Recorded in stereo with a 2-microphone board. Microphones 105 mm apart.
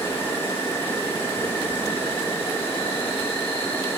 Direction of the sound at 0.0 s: 25° left (ahead or behind).